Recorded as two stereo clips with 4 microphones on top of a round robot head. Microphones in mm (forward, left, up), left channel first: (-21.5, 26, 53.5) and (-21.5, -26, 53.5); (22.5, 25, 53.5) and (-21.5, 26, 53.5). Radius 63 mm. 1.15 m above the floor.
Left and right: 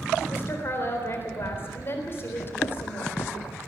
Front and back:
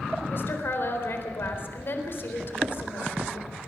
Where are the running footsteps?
125° left, 1.9 m.